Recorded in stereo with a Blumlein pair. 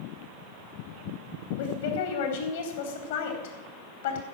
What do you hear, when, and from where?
1.6 s a woman speaking: 60° left, 4 m